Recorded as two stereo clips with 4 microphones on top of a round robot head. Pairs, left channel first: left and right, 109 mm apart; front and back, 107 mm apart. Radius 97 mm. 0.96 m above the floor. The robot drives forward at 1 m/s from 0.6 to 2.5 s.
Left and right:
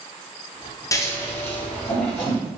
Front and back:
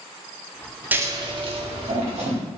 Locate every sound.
0.9 s scissors: 120° left, 0.6 m; by 2.4 s 170° left, 1.7 m